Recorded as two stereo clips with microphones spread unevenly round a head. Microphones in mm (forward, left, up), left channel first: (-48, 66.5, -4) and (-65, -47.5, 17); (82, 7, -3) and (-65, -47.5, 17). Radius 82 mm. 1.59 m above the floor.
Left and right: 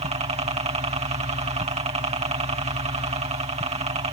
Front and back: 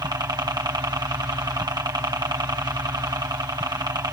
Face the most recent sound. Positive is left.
turn(degrees=-95)